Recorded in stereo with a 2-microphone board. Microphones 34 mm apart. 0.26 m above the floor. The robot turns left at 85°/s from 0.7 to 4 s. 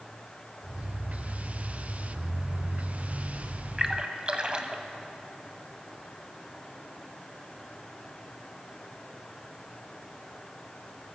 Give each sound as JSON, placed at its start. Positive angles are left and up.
{"t": 3.8, "sound": "a splash", "side_deg": -20, "distance_m": 0.5}